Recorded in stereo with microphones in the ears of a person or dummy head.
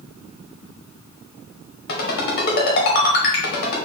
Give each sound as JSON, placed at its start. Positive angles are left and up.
{"t": 1.9, "sound": "a ringtone", "side_deg": 60, "distance_m": 1.1}